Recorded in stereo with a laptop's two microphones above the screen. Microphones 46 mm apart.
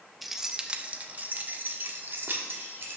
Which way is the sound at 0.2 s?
5° right (ahead or behind).